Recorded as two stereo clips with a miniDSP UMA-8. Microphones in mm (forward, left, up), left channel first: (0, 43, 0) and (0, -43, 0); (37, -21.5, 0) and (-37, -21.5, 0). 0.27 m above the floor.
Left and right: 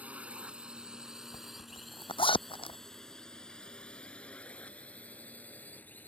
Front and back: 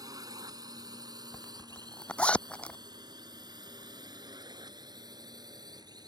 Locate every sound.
0.0 s a drone: 160° right; by 6.1 s 160° left
1.3 s a zipper: 75° left